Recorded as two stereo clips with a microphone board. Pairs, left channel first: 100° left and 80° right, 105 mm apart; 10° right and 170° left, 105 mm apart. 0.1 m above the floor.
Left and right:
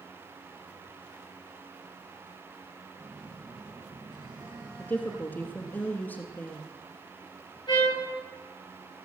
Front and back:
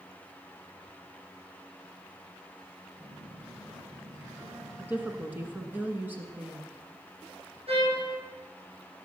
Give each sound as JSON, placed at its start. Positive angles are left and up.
{"t": 3.0, "sound": "a phone buzzing", "azimuth_deg": -125, "distance_m": 5.0}
{"t": 4.8, "sound": "a woman speaking", "azimuth_deg": 135, "distance_m": 1.3}
{"t": 7.7, "sound": "a trumpet", "azimuth_deg": 145, "distance_m": 8.0}